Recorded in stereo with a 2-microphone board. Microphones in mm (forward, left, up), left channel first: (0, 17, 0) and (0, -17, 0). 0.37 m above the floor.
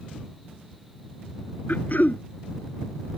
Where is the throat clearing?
55° left (ahead or behind).